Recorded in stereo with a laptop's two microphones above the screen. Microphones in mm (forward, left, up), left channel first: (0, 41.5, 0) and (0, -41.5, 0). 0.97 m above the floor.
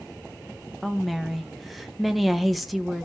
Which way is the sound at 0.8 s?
Centre (ahead or behind).